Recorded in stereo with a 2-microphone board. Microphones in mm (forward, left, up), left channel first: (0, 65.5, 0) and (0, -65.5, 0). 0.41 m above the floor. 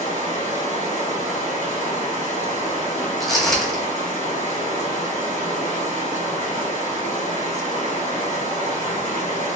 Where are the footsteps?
Centre (ahead or behind), 1.0 m.